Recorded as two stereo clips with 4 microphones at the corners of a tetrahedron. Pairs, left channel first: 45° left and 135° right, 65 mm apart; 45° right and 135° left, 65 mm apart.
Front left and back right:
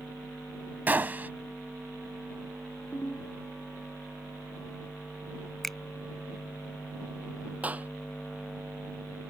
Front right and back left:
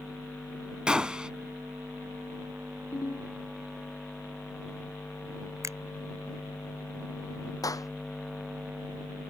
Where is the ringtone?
25° right.